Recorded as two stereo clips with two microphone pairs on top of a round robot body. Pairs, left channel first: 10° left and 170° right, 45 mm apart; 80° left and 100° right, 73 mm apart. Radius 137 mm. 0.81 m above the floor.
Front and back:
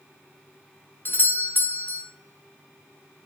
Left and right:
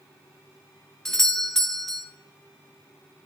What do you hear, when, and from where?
1.1 s a doorbell: 20° left, 1.9 m